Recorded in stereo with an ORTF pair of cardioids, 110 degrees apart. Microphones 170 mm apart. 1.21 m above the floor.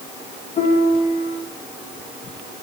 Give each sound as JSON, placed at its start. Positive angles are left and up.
{"t": 0.6, "sound": "a piano", "azimuth_deg": 35, "distance_m": 1.5}